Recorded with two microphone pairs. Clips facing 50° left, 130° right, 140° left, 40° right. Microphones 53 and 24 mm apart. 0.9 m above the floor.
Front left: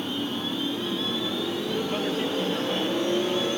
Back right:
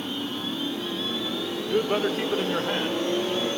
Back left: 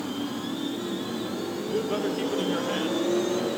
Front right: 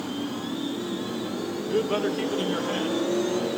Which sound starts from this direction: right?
A man speaking, at 1.7 s.